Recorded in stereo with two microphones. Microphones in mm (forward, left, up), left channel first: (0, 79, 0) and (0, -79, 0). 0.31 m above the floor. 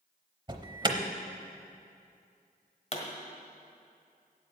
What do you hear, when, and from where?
0.5 s an alarm: 30° right (ahead or behind), 0.8 m
2.9 s a pop: 40° left (ahead or behind), 1.5 m